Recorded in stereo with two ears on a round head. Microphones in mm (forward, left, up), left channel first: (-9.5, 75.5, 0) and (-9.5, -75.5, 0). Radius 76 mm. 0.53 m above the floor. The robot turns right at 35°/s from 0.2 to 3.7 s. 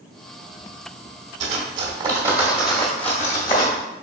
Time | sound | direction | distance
1.4 | cutlery clinking | 40° right (ahead or behind) | 1.0 m